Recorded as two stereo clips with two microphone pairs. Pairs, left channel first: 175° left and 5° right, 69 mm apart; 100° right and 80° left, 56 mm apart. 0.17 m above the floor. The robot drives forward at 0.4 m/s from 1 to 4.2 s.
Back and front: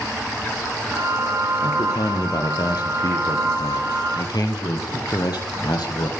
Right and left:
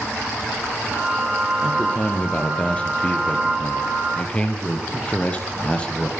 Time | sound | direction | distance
1.6 | a man speaking | 165° right | 5 m